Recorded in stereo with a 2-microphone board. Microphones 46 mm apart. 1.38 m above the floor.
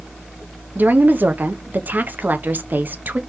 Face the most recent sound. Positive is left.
turn(degrees=-45)  # may be behind; listen again after turning